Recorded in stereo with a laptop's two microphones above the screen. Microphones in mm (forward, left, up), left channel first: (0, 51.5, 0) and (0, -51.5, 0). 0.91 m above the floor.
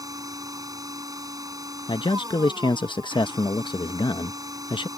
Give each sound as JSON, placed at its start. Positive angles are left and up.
{"t": 0.0, "sound": "a machine running", "side_deg": -35}
{"t": 1.9, "sound": "a man speaking", "side_deg": 50}